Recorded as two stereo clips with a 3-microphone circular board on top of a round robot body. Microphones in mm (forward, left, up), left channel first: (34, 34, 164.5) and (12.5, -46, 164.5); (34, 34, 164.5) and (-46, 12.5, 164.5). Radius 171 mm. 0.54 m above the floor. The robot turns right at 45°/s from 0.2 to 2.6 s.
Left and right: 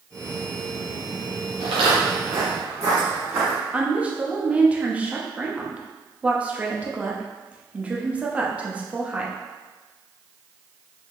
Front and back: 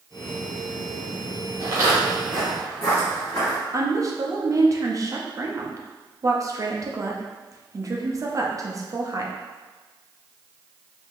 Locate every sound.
1.6 s footsteps: 115° right, 0.7 m; by 3.6 s 45° right, 1.7 m
3.7 s a woman speaking: 170° right, 0.9 m